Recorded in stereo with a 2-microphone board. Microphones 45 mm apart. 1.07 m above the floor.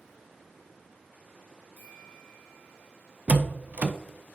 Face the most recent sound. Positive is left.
turn(degrees=-35)  # may be behind; listen again after turning